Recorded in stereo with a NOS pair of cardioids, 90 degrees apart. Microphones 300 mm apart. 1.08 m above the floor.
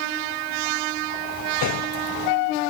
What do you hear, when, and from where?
1.6 s a gunshot: 70° left